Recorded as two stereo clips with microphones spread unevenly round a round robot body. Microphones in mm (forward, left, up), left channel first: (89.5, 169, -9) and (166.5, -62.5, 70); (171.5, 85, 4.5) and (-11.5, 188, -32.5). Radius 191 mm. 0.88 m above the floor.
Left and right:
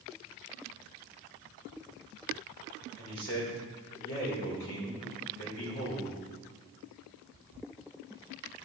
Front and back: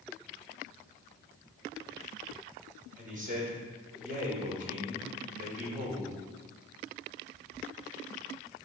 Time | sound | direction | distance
3.0 | a man speaking | 105° left | 3.5 m